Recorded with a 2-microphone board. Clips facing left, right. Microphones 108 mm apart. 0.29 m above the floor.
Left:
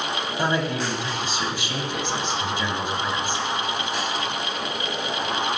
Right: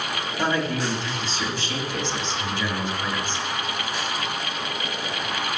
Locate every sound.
0.4 s a man speaking: 15° left (ahead or behind), 1.5 m